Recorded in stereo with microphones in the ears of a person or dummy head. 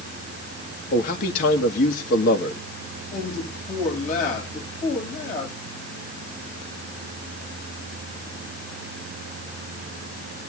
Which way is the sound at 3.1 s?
50° left (ahead or behind).